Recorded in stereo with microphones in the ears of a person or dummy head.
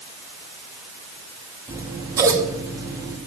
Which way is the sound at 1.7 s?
15° right (ahead or behind).